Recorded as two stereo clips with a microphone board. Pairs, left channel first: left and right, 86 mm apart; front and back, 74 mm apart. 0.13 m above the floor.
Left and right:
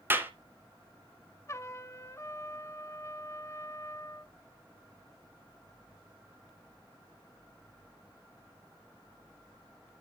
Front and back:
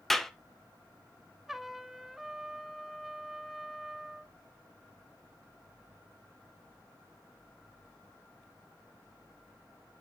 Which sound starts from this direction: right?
A clap, at 0.1 s.